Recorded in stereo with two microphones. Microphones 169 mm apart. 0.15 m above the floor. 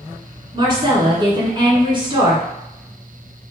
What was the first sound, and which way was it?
A woman speaking, 30° right (ahead or behind).